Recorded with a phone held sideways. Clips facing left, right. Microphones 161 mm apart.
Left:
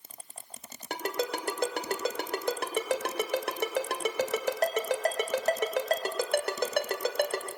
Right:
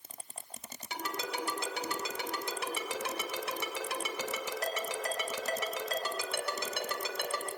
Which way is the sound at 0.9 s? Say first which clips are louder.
Left 7 dB; 60° left (ahead or behind).